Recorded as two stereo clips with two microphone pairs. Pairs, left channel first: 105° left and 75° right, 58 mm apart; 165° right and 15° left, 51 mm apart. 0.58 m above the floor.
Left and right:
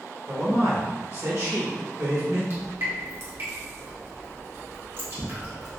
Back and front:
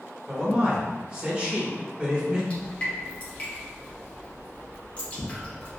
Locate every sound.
0.3 s a man speaking: 60° right, 1.7 m
2.5 s dripping: 110° right, 1.0 m